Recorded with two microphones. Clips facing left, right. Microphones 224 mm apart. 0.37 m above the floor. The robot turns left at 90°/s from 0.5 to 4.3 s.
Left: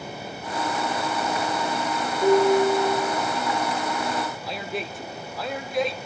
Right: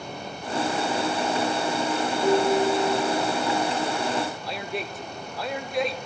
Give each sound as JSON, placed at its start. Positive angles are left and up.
{"t": 2.2, "sound": "dishes clattering", "azimuth_deg": 120, "distance_m": 3.5}
{"t": 4.4, "sound": "a man speaking", "side_deg": 0, "distance_m": 0.8}